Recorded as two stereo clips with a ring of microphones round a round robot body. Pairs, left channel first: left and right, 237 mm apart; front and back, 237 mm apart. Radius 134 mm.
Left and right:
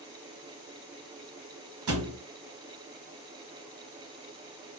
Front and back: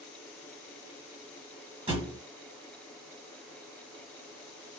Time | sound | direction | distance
1.9 | a thud | 110° right | 1.1 m